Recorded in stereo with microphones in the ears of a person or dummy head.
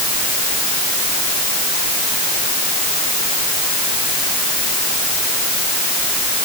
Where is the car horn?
No car horn in this recording.